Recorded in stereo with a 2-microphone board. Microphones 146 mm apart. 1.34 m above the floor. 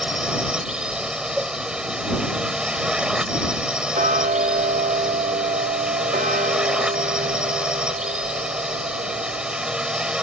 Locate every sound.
0.0 s a drone: 5° right (ahead or behind)
1.4 s a cowbell: 5° right (ahead or behind)
3.9 s ticking: 70° right (ahead or behind)